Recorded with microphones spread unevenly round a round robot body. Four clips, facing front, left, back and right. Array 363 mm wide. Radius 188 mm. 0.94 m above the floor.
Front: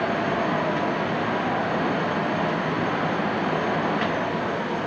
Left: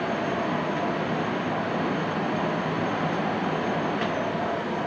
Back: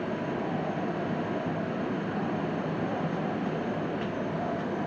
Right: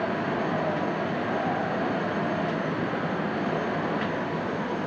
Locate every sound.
Only background noise.